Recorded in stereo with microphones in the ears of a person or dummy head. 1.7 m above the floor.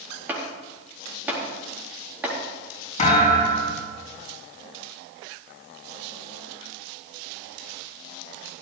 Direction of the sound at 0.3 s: 10° right (ahead or behind).